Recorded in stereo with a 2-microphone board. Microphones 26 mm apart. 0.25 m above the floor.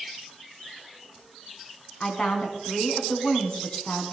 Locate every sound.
2.0 s a woman speaking: 40° left (ahead or behind), 2.5 m